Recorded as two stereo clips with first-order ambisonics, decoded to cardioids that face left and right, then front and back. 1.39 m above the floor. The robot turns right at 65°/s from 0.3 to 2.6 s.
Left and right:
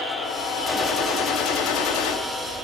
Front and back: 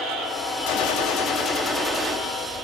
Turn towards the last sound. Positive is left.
turn(degrees=125)